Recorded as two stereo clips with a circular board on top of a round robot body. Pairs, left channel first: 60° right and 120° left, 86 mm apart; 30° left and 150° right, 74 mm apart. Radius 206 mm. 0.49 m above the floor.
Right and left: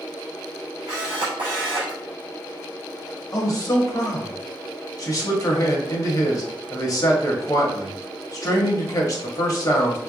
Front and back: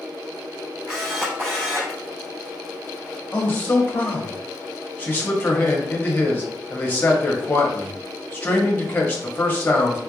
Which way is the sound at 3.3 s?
30° right.